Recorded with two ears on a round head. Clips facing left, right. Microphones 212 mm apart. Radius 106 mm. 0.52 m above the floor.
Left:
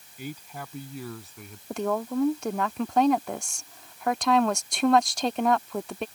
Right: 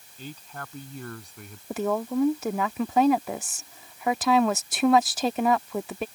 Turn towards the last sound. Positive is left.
turn(degrees=-5)  # may be behind; listen again after turning